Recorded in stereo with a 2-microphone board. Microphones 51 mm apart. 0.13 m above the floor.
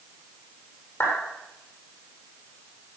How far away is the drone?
No drone in this recording.